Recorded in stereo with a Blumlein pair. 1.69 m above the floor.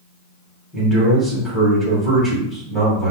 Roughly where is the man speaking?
Ahead.